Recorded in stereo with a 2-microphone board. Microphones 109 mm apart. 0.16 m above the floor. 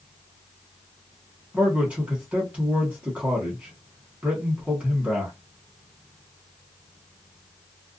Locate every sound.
1.5 s a man speaking: 15° right (ahead or behind), 1.2 m